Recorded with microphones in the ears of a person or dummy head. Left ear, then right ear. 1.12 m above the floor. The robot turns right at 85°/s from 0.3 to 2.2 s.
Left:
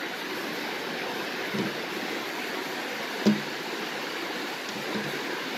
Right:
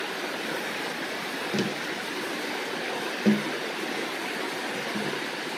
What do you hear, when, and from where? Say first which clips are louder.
1.5 s tapping: right 1 dB; 20° right (ahead or behind), 0.8 m; by 5.6 s 30° left (ahead or behind), 0.8 m